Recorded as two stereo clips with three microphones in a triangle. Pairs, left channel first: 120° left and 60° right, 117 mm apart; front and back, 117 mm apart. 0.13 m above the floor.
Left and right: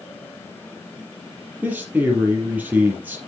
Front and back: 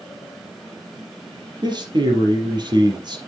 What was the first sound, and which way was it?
A man speaking, 135° right.